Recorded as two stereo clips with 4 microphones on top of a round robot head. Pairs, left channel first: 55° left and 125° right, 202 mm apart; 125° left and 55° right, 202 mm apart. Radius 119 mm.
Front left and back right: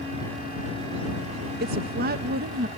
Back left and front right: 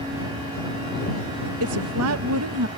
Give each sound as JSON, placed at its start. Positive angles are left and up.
{"t": 1.6, "sound": "a woman speaking", "azimuth_deg": -75}